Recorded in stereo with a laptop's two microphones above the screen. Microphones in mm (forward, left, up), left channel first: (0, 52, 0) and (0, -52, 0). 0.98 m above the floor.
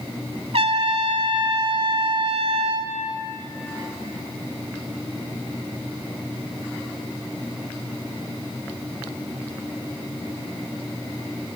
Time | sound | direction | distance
0.5 | a trumpet | 70° right (ahead or behind) | 2.5 m